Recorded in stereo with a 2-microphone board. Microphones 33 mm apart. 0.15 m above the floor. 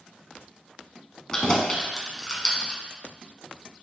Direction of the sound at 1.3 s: 20° left (ahead or behind).